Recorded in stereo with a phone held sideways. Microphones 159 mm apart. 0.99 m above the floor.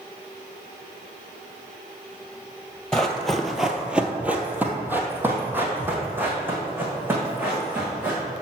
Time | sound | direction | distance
2.9 | running footsteps | 5° left (ahead or behind) | 1.1 m